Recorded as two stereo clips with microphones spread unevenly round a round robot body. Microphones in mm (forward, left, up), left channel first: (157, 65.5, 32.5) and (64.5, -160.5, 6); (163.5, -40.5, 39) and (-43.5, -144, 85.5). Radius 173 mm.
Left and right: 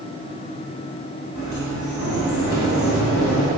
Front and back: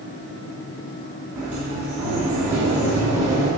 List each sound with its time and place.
1.4 s a sliding door: 120° left, 1.9 m